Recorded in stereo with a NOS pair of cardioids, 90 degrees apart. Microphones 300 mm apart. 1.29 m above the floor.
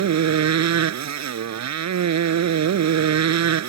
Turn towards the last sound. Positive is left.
turn(degrees=-65)